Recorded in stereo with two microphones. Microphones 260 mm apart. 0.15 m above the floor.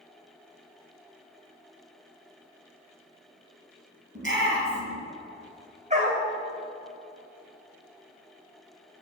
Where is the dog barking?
25° right (ahead or behind), 2.5 m.